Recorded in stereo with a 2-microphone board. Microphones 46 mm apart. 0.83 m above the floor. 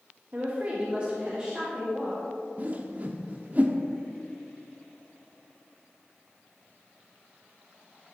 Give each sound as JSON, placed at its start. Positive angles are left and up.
{"t": 0.3, "sound": "a woman speaking", "side_deg": -35, "distance_m": 1.1}
{"t": 2.6, "sound": "a whoosh", "side_deg": -40, "distance_m": 0.7}